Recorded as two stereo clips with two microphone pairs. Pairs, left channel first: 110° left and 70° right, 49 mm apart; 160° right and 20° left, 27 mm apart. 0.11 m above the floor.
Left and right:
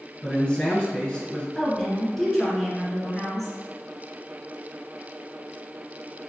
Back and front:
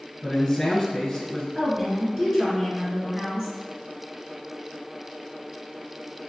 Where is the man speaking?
145° left, 1.3 m.